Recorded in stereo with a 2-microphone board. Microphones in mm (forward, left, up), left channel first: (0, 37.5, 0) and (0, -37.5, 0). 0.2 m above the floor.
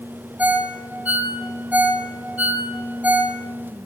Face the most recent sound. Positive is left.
turn(degrees=-20)  # may be behind; listen again after turning